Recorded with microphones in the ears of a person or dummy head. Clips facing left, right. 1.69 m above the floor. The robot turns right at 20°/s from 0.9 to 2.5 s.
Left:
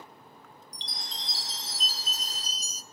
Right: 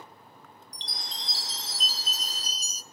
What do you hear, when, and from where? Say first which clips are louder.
0.7 s a chime: right 1 dB; 85° right, 0.8 m; by 2.8 s 55° right, 0.8 m